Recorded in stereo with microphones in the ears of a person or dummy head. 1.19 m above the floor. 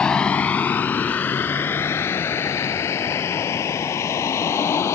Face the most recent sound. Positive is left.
turn(degrees=20)  # may be behind; listen again after turning